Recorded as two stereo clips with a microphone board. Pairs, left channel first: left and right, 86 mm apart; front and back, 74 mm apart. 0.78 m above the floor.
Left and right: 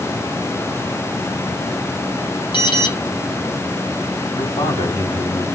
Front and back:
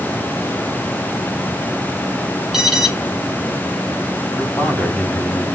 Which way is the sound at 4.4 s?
80° left.